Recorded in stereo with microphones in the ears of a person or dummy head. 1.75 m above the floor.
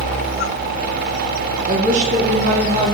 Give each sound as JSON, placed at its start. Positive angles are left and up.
{"t": 1.7, "sound": "a woman speaking", "side_deg": -40, "distance_m": 1.7}